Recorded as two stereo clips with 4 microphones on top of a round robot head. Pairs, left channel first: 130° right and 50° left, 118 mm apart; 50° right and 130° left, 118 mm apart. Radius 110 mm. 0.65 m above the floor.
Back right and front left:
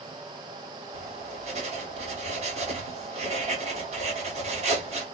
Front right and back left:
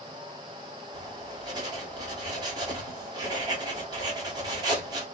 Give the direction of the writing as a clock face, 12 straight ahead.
10 o'clock.